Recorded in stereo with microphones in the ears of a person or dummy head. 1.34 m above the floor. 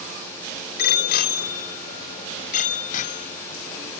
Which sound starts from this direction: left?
A bicycle bell, at 0.8 s.